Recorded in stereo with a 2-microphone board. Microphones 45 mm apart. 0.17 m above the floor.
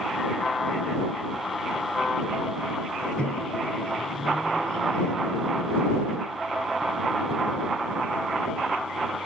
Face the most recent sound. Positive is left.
turn(degrees=25)  # may be behind; listen again after turning